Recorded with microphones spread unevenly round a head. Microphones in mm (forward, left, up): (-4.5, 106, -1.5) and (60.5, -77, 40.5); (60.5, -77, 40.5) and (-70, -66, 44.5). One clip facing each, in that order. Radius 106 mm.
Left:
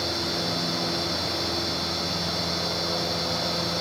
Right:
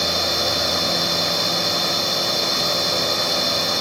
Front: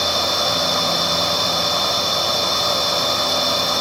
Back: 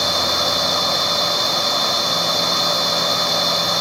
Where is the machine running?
90° right.